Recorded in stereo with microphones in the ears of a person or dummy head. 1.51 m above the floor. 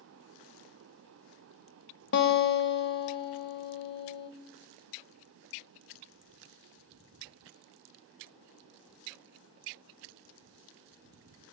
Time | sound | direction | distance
2.1 | a guitar | 55° left (ahead or behind) | 0.9 m